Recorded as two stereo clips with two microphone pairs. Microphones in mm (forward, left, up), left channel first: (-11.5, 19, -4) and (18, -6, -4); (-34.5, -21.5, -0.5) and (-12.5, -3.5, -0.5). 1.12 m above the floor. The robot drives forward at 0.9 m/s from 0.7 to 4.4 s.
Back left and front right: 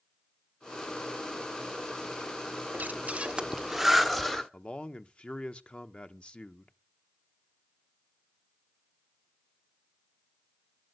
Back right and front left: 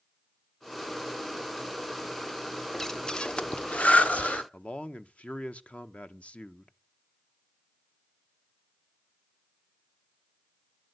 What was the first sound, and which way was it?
Breathing, 65° right.